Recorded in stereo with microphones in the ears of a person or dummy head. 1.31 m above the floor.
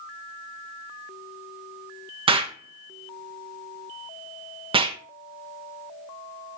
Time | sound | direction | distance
2.3 | an explosion | 25° right (ahead or behind) | 0.8 m